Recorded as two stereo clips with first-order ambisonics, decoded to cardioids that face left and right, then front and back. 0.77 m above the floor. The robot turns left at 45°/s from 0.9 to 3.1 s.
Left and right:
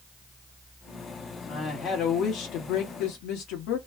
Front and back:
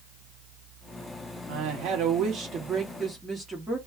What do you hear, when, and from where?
1.5 s a woman speaking: 170° left, 1.3 m; by 3.8 s 95° left, 1.3 m